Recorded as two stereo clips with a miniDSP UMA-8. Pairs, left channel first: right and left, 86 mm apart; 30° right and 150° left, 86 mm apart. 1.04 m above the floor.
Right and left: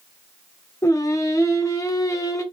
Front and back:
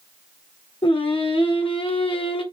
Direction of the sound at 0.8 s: 40° right.